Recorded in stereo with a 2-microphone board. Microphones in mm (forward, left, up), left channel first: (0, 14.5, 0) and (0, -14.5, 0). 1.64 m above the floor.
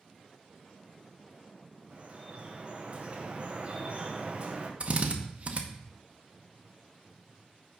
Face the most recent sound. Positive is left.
turn(degrees=-45)  # may be behind; listen again after turning